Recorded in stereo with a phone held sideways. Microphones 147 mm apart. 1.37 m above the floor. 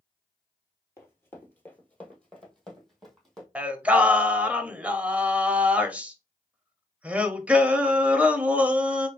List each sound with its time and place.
1.0 s running footsteps: 20° left (ahead or behind), 1.4 m; by 3.5 s centre (ahead or behind), 2 m
3.5 s singing: 10° right (ahead or behind), 0.7 m